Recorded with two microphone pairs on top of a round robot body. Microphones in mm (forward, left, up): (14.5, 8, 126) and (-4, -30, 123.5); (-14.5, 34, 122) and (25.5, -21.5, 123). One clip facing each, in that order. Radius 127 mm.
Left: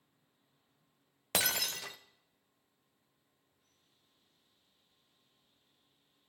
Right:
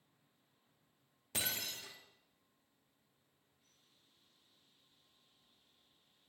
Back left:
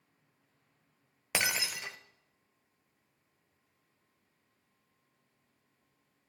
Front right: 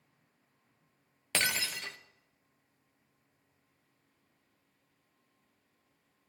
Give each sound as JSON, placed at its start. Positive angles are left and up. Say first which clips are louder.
{"t": 1.3, "sound": "breaking glass", "louder": "left 8 dB, even", "azimuth_deg": 50, "distance_m": 0.6}